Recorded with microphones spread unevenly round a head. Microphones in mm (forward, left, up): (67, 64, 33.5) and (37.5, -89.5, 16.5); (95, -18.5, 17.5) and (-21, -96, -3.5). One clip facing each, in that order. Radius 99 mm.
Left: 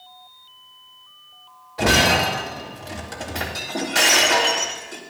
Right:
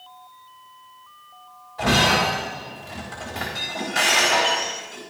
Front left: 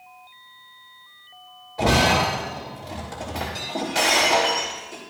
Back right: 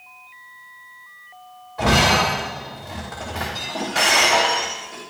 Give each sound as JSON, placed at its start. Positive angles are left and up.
{"t": 1.8, "sound": "breaking glass", "azimuth_deg": 100, "distance_m": 3.0}